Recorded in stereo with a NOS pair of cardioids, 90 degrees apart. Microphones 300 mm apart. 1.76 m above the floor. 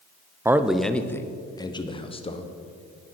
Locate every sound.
0.5 s a man speaking: 10° right, 0.7 m; by 2.5 s 20° left, 1.7 m